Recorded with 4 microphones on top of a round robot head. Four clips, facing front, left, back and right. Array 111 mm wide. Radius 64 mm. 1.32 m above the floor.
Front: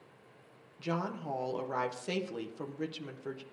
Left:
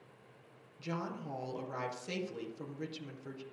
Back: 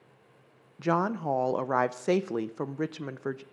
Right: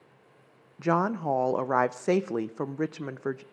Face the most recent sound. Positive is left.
turn(degrees=-125)